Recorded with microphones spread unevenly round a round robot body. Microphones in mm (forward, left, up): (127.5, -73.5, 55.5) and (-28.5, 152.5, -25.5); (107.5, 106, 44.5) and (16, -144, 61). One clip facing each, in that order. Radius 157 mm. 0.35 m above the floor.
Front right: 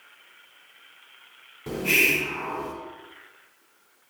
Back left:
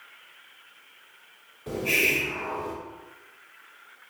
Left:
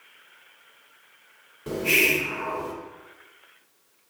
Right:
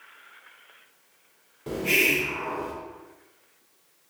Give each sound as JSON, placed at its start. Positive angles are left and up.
{"t": 1.7, "sound": "a hiss", "azimuth_deg": 20, "distance_m": 0.5}